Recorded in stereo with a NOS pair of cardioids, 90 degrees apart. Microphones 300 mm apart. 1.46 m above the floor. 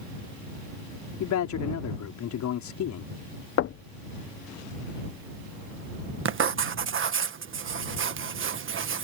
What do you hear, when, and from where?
1.2 s a man speaking: 70° left
3.6 s knocking: 50° left
6.2 s writing: 45° right